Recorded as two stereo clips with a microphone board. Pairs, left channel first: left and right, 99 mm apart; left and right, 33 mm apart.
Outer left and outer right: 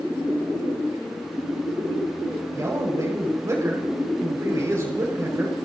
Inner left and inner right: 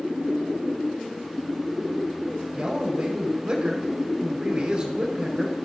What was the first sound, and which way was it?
A man speaking, 30° right (ahead or behind).